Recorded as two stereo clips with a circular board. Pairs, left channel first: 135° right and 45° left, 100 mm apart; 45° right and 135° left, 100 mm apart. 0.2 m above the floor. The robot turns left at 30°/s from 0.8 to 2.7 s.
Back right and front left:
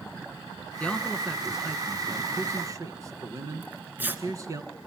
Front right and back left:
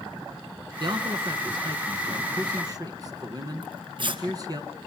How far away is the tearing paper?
About 2 m.